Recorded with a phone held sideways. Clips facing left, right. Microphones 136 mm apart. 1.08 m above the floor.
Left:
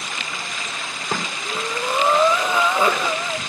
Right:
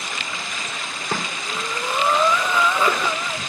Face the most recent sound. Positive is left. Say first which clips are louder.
# left 3 dB
turn(degrees=20)  # may be behind; listen again after turning